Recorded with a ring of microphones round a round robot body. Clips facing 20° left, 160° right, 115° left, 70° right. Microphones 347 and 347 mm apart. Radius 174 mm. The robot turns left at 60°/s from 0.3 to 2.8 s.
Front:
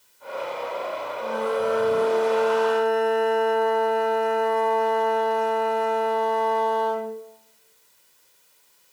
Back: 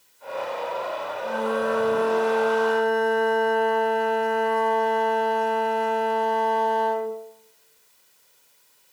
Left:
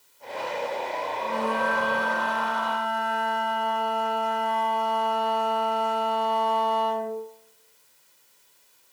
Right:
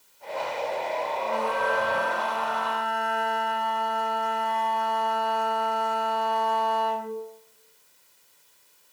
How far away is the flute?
About 1.0 m.